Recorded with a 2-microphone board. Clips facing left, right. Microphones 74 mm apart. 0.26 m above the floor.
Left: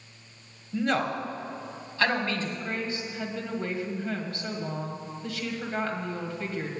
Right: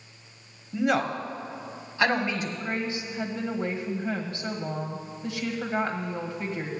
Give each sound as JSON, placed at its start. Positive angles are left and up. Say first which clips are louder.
{"t": 0.7, "sound": "a man speaking", "louder": "right 2 dB", "side_deg": -10, "distance_m": 1.1}
{"t": 2.6, "sound": "a woman speaking", "louder": "right 2 dB", "side_deg": -20, "distance_m": 1.6}